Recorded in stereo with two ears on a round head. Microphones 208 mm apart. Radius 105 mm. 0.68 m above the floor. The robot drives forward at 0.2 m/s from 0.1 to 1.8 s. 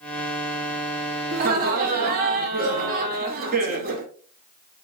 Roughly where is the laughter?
Right.